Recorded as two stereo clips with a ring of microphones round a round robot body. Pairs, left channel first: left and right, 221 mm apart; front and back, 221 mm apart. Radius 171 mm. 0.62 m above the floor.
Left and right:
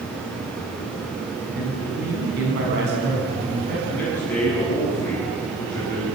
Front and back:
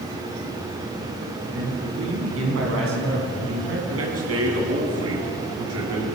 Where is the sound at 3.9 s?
175° left, 7.5 m.